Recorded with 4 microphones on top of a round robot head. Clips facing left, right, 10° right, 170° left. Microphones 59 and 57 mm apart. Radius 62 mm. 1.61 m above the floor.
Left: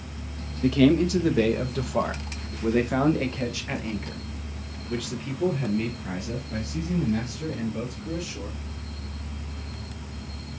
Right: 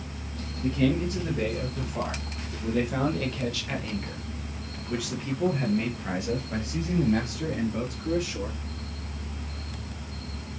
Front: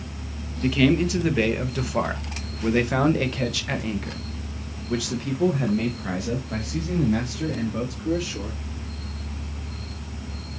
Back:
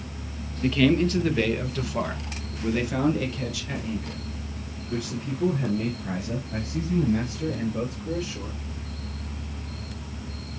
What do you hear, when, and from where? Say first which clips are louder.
0.6 s a man speaking: left 6 dB, front 1 dB; 75° left, 1.9 m; by 8.6 s 30° right, 3.5 m